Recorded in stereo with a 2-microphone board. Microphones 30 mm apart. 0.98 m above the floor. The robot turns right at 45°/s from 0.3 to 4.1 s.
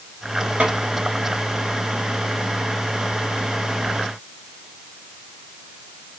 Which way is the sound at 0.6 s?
40° right (ahead or behind).